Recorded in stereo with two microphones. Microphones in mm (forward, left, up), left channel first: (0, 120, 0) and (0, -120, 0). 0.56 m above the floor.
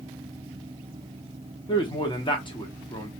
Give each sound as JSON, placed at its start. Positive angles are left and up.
{"t": 1.7, "sound": "a man speaking", "side_deg": 20, "distance_m": 0.8}